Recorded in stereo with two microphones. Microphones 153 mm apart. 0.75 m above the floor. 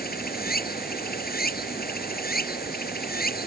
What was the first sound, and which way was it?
Running water, 85° left.